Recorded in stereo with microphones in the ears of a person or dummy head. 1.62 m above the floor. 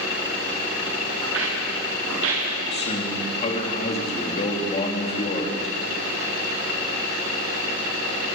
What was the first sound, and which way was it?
Footsteps, 80° right.